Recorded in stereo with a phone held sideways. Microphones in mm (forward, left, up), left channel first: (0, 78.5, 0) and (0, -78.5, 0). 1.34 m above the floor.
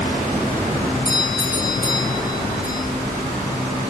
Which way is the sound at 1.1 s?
30° left (ahead or behind).